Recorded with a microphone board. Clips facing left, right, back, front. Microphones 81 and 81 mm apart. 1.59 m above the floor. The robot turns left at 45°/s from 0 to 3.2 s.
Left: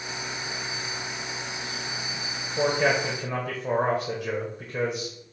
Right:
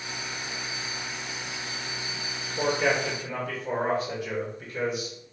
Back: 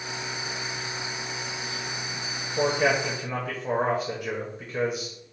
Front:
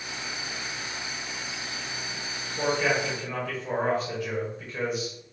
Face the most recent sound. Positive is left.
turn(degrees=120)